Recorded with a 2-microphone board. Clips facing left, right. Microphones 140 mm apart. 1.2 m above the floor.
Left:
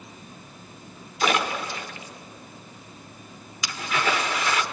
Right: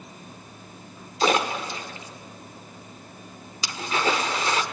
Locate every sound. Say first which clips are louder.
1.2 s a splash: right 2 dB; 30° right (ahead or behind), 1.5 m